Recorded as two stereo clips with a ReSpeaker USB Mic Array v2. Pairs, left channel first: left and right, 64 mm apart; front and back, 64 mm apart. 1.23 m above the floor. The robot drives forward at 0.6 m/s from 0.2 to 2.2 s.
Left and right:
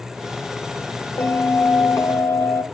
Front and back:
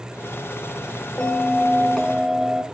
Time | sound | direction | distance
1.2 | a bell | 60° left | 1.2 m